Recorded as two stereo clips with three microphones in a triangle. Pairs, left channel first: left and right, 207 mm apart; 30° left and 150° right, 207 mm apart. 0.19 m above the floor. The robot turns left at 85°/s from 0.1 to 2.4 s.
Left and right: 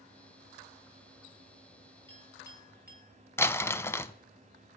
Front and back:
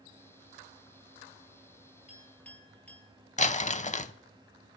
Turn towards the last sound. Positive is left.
turn(degrees=25)